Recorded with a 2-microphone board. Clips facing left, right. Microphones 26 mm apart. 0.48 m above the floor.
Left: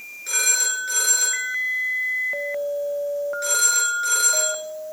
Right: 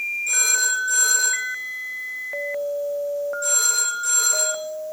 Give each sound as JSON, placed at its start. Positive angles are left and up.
{"t": 0.3, "sound": "a phone ringing", "side_deg": 50, "distance_m": 6.0}